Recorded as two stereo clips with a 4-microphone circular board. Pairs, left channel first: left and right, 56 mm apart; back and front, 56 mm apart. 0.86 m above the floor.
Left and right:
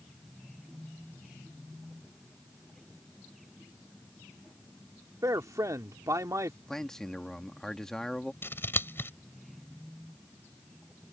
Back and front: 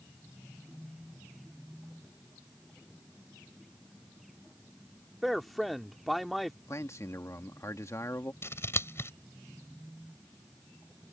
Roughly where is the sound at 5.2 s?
Right.